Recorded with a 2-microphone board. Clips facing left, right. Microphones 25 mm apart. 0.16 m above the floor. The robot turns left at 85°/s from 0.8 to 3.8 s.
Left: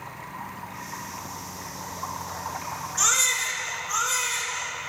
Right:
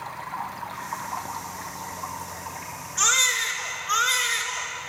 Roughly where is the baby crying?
Ahead.